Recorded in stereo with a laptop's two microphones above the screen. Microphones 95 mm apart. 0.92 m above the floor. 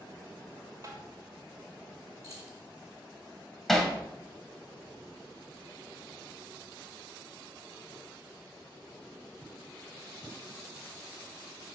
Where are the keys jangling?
40° right (ahead or behind), 2 m.